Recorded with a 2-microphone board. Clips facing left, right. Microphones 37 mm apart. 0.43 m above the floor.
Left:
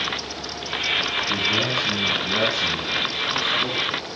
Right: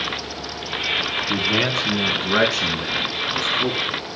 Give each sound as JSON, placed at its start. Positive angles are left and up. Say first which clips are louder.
{"t": 1.3, "sound": "a man speaking", "louder": "right 3 dB", "side_deg": -55, "distance_m": 4.0}